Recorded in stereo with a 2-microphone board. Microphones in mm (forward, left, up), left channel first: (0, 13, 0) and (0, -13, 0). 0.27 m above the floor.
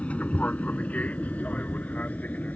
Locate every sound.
0.0 s an aircraft: 55° left (ahead or behind); by 2.6 s 70° left (ahead or behind)